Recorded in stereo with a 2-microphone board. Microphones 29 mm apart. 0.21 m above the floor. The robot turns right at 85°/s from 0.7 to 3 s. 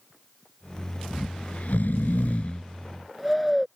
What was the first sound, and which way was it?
Snoring, 15° left.